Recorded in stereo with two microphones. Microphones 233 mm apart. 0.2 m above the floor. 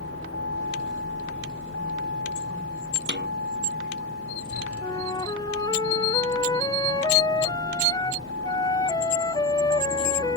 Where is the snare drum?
50° right (ahead or behind).